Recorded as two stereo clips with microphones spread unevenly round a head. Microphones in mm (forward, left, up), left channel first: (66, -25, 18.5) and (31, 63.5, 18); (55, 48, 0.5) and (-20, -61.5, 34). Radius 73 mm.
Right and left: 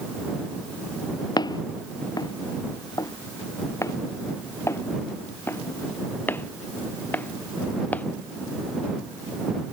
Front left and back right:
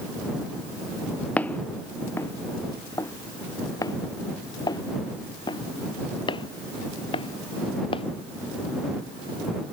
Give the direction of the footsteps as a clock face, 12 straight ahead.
1 o'clock.